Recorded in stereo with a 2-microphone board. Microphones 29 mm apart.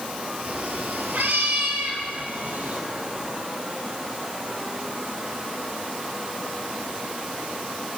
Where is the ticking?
No ticking in this recording.